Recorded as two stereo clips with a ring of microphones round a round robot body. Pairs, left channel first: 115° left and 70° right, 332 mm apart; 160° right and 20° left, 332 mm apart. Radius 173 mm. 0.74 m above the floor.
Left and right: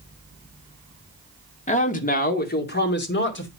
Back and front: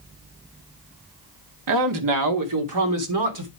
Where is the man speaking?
45° left, 2.0 m; by 3.5 s 55° left, 3 m.